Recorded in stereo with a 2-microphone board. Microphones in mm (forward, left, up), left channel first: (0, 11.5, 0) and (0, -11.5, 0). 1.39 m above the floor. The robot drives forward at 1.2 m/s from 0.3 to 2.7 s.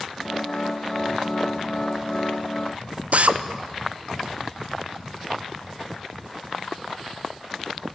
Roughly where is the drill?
Right.